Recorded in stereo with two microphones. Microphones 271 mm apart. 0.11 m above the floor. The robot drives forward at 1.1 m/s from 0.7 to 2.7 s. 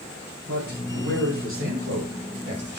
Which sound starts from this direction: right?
A man speaking, at 0.5 s.